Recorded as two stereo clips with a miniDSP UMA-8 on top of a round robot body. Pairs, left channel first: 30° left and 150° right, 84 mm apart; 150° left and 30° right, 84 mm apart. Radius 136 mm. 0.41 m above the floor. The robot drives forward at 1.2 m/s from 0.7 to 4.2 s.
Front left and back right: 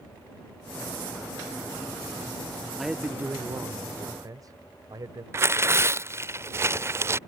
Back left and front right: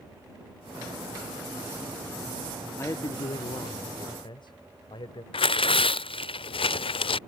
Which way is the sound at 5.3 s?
150° left.